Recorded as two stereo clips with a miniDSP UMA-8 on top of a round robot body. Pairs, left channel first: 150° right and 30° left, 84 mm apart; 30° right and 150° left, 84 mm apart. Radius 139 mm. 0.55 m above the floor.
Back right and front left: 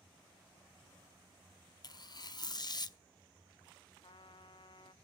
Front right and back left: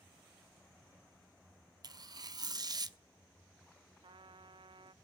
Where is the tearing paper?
Straight behind, 1.0 m.